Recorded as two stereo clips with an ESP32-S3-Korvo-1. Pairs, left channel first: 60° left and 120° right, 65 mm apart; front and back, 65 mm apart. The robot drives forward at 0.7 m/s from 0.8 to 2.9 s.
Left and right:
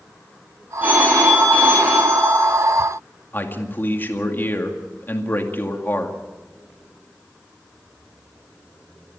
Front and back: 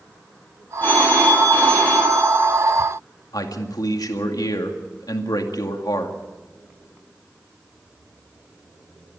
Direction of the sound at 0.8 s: 60° right.